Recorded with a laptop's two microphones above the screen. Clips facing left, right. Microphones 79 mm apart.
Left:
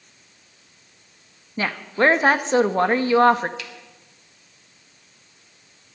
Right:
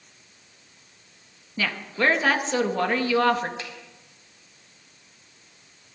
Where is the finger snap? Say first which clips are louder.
Right 1 dB; 30° right (ahead or behind), 3.5 m.